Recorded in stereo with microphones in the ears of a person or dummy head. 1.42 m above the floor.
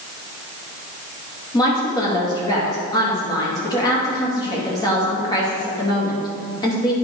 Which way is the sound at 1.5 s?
25° left (ahead or behind).